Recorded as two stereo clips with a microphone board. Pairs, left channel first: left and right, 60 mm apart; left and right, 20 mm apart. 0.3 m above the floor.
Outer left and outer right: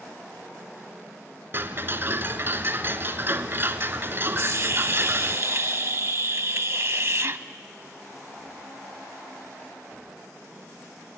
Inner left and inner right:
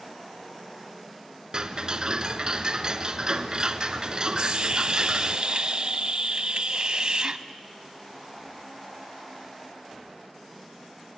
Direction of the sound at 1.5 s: 40° right (ahead or behind).